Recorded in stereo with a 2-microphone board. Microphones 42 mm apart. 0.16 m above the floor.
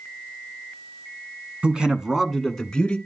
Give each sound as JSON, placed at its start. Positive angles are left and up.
{"t": 1.6, "sound": "a man speaking", "side_deg": -25, "distance_m": 1.1}